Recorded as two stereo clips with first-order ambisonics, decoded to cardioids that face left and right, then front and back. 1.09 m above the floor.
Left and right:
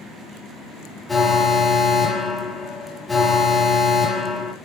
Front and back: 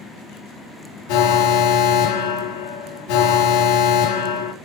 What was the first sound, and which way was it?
An alarm, 10° left.